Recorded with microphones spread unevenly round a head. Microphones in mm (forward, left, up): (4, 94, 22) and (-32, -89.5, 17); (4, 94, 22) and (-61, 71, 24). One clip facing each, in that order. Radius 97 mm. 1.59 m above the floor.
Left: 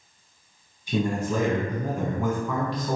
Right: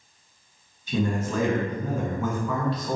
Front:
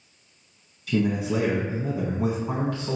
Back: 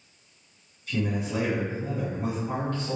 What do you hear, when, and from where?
0.9 s a man speaking: straight ahead, 1.5 m